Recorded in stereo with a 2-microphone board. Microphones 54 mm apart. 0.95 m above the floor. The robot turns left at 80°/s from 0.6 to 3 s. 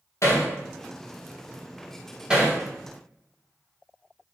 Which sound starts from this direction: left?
Hammering, at 0.2 s.